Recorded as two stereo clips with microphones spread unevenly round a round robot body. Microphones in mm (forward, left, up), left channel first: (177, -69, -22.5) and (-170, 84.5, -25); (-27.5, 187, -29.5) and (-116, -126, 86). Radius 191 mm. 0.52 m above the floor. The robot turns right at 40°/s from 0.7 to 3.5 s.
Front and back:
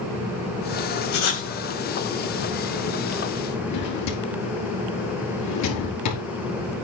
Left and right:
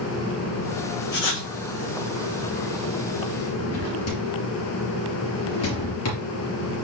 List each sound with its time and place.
1.1 s writing: 20° left, 3 m; by 1.5 s 35° left, 3 m
3.7 s a drawer: 25° left, 4 m